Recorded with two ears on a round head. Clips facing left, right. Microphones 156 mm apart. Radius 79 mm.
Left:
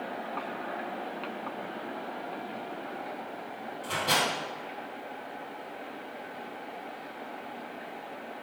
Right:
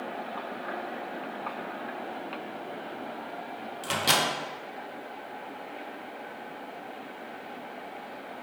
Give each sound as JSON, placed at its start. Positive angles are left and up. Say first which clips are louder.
{"t": 3.8, "sound": "a microwave", "louder": "right 1 dB", "side_deg": -85, "distance_m": 0.7}